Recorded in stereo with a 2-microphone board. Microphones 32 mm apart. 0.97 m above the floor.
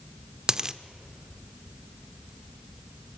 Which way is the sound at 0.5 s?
20° right (ahead or behind).